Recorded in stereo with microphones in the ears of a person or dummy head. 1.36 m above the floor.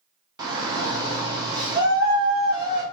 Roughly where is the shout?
Centre.